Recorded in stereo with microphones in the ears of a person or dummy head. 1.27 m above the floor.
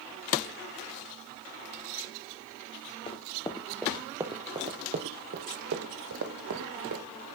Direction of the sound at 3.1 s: 30° left (ahead or behind).